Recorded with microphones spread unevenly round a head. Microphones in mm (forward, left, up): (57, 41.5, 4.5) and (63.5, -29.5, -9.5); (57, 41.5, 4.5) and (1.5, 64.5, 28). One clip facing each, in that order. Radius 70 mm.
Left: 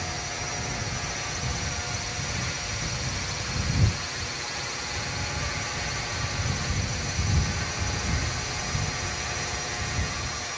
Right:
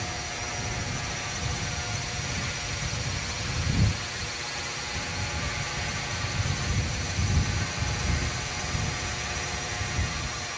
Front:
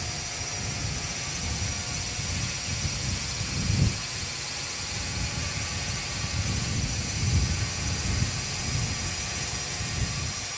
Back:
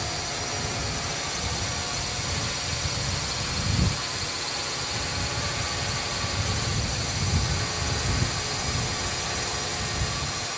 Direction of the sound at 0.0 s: 175° right.